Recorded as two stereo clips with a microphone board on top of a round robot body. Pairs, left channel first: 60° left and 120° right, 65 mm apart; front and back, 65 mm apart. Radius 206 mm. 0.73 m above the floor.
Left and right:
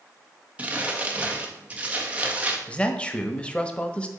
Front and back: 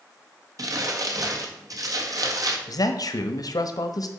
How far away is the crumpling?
About 1.7 m.